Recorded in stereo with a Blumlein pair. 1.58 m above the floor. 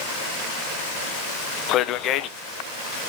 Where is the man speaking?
35° left, 0.9 m.